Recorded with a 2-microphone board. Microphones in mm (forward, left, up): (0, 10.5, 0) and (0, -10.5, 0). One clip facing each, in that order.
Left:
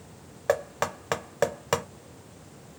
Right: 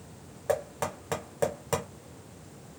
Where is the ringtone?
I don't hear a ringtone.